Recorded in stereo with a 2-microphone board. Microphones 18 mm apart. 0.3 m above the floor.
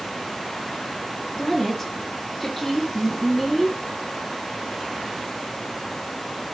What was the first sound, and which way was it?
A woman speaking, 10° left (ahead or behind).